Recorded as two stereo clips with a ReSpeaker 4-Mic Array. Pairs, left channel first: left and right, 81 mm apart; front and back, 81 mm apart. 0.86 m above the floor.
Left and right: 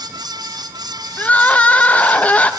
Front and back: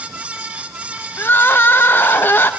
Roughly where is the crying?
Ahead left.